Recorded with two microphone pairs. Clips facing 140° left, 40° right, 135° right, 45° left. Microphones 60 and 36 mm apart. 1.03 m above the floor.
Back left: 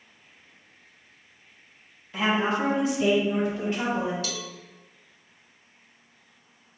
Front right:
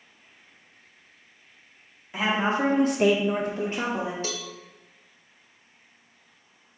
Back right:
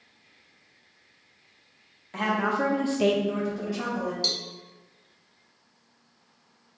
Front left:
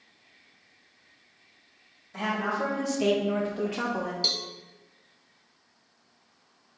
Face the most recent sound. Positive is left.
turn(degrees=-25)